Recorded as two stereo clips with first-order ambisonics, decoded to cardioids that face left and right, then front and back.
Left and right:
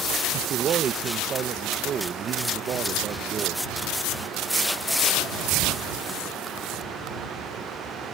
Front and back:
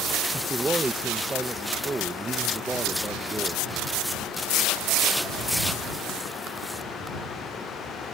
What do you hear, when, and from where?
0.3 s a man speaking: 110° right